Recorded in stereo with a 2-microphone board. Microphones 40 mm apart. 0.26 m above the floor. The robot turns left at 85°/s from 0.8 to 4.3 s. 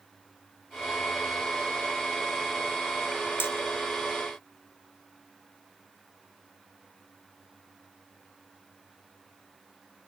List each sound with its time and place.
3.4 s hammering: 75° left (ahead or behind), 2 m